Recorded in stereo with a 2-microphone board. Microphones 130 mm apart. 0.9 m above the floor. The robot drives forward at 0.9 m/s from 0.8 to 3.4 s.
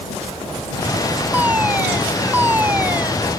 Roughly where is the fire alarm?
Centre.